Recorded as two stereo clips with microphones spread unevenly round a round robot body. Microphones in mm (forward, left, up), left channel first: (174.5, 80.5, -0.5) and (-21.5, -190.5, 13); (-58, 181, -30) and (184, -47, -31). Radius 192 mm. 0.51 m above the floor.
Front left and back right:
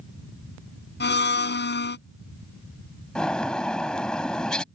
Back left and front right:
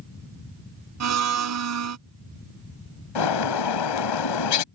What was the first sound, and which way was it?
A blender, 5° right.